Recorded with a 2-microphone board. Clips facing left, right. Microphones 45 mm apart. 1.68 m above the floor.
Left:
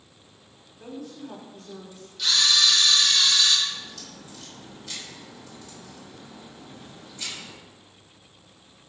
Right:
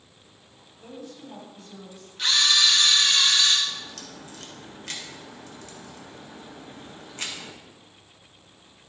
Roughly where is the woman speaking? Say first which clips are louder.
Left 3 dB; left.